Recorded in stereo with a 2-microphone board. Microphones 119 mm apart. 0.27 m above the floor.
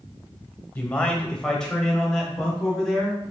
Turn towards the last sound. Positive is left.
turn(degrees=0)  # may be behind; listen again after turning